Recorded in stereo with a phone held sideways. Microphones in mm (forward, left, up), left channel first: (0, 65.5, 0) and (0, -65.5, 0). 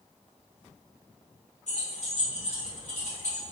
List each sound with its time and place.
1.7 s keys jangling: 60° left (ahead or behind), 1.5 m